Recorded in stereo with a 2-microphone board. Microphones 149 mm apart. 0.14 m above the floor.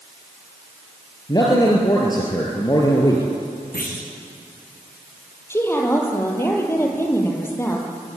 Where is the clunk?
85° left, 4.5 m.